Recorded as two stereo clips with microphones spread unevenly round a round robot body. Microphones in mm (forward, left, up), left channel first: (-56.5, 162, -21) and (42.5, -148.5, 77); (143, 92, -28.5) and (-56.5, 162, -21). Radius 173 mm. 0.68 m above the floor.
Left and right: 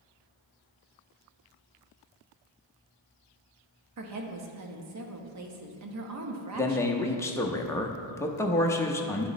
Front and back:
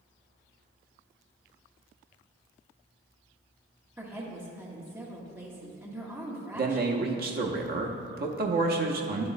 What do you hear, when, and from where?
4.0 s a woman speaking: 115° right, 1.0 m
6.5 s a man speaking: 160° left, 0.7 m